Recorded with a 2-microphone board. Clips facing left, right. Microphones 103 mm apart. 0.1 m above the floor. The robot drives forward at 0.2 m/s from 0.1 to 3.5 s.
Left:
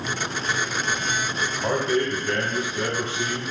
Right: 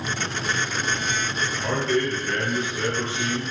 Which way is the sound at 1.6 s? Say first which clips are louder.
Left 1 dB; 20° left (ahead or behind).